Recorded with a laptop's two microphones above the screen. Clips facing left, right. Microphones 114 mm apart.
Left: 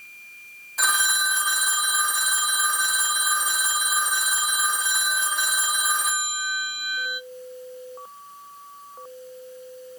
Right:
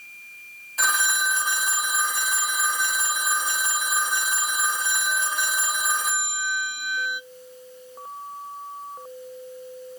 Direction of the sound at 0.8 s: Centre (ahead or behind).